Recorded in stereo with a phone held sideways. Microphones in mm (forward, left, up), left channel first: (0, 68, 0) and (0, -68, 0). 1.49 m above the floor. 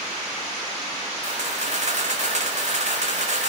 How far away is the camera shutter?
About 5.5 m.